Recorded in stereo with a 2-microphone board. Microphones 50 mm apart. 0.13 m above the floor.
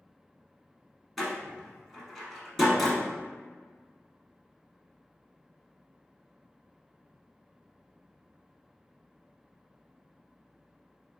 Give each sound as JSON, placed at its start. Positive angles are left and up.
{"t": 1.2, "sound": "a door slam", "side_deg": 0, "distance_m": 1.7}